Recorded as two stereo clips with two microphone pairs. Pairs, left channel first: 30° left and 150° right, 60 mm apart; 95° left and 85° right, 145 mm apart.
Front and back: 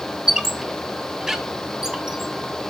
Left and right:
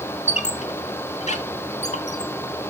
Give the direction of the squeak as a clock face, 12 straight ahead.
8 o'clock.